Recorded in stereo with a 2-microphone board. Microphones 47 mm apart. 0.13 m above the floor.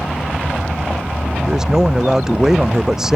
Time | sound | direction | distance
1.4 | a man speaking | 10° right (ahead or behind) | ?